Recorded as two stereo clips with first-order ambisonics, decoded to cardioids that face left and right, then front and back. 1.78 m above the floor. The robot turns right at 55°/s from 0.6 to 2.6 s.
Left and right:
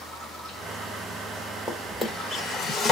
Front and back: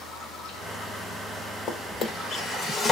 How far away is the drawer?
About 1.1 m.